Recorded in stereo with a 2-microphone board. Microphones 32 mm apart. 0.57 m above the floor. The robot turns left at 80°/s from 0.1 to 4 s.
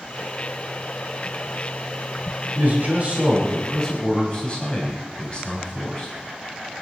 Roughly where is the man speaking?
Right.